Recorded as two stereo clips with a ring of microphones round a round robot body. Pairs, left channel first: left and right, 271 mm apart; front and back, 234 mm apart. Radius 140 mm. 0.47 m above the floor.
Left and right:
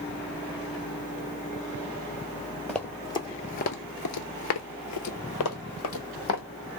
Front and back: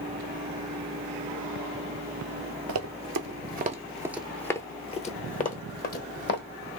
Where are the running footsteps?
Straight behind, 0.8 m; by 6.4 s 45° left, 1.4 m.